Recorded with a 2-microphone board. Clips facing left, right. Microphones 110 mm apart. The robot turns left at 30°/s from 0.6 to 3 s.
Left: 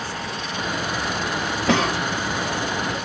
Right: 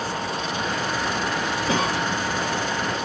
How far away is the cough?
About 1.1 m.